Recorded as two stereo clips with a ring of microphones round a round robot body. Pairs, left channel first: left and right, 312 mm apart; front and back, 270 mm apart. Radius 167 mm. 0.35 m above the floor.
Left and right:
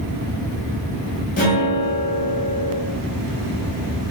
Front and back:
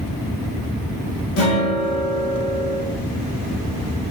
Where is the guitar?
30° left, 2 m.